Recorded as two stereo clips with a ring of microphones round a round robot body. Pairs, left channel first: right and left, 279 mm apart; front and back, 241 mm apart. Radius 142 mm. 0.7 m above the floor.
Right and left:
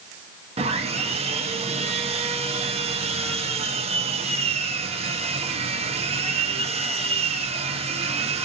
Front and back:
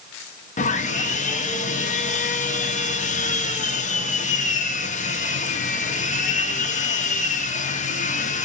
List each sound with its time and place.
0.6 s sawing: 35° left, 0.8 m